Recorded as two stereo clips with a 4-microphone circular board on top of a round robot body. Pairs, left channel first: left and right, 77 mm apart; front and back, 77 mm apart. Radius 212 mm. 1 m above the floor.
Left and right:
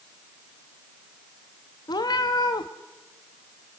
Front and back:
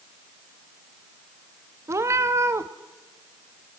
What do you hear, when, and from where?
1.9 s a cat meowing: 130° left, 0.7 m